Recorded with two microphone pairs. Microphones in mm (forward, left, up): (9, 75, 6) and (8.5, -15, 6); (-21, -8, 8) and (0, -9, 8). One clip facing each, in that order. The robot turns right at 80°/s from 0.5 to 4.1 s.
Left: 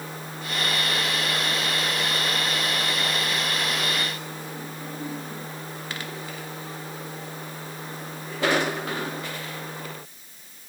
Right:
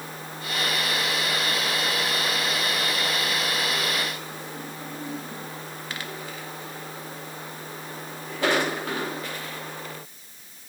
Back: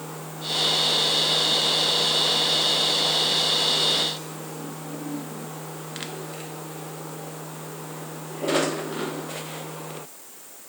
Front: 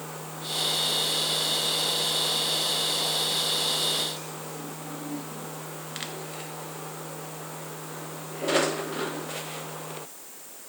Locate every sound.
Only background noise.